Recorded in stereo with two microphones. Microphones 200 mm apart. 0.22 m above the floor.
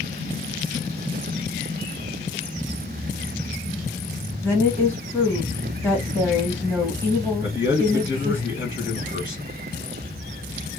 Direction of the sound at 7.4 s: 65° left (ahead or behind).